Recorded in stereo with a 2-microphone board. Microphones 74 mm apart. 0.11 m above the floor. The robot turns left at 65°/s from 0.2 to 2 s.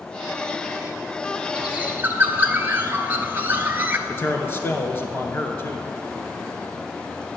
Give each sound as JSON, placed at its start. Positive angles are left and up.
{"t": 1.6, "sound": "a bird", "side_deg": -10, "distance_m": 1.0}
{"t": 4.1, "sound": "a man speaking", "side_deg": 35, "distance_m": 1.5}